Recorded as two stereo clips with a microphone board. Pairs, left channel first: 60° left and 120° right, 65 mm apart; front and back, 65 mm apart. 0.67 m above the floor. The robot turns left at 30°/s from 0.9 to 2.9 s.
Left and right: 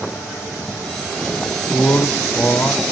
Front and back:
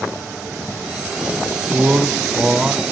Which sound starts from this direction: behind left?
A man speaking, at 1.7 s.